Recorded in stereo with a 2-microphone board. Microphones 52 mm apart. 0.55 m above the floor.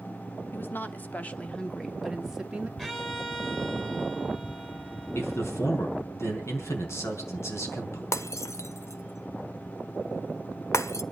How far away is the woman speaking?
About 1.4 m.